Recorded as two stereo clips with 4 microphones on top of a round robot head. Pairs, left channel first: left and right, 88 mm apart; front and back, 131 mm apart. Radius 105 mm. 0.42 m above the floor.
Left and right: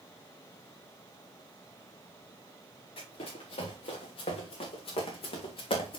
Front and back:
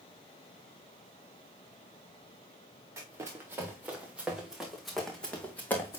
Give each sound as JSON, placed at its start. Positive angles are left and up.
{"t": 3.0, "sound": "running footsteps", "azimuth_deg": 115, "distance_m": 3.0}